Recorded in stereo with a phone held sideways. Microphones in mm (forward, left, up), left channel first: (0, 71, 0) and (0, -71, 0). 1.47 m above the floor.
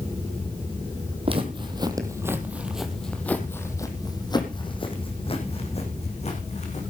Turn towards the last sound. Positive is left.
turn(degrees=50)  # may be behind; listen again after turning